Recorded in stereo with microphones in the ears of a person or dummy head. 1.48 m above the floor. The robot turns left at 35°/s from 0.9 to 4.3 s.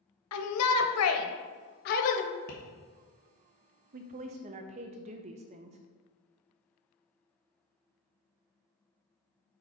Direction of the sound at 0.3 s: 85° left.